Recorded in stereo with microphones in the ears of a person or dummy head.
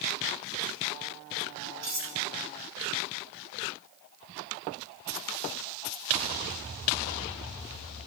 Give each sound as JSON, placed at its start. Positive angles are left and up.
{"t": 1.8, "sound": "cutlery clinking", "side_deg": -75, "distance_m": 4.5}